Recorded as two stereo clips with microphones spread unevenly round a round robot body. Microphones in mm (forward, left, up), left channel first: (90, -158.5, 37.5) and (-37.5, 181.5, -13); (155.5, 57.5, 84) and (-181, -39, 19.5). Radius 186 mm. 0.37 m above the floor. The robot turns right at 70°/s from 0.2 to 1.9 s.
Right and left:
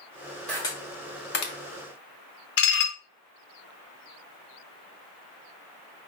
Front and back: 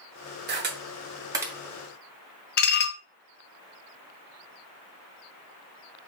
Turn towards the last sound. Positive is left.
turn(degrees=-30)